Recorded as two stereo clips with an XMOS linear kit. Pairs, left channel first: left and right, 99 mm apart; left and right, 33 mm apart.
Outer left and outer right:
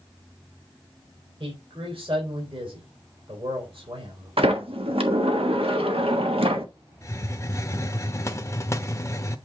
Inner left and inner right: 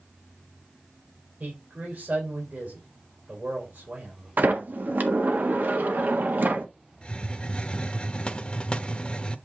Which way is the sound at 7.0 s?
30° left (ahead or behind).